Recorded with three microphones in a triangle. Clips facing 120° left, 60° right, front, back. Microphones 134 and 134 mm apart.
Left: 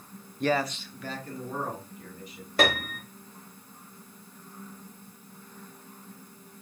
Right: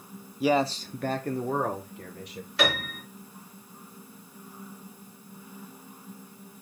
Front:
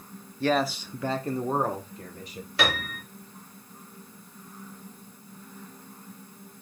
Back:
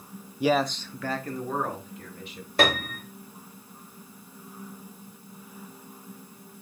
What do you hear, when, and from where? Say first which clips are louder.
0.4 s a man speaking: right 3 dB, back 1 dB; 140° right, 0.5 m; by 2.5 s 50° right, 2 m
2.6 s a piano: left 2 dB, back 4 dB; 150° left, 1.9 m